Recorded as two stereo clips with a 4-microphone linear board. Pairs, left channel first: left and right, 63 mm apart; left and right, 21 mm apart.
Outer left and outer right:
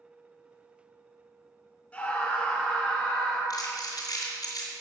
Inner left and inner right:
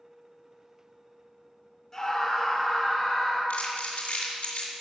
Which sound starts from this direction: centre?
A scream, at 1.9 s.